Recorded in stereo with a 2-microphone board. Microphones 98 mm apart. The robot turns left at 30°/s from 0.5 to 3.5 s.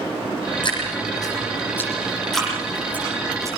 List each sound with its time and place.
0.6 s dripping: 55° left (ahead or behind), 10 m; by 3.5 s 30° right (ahead or behind), 10 m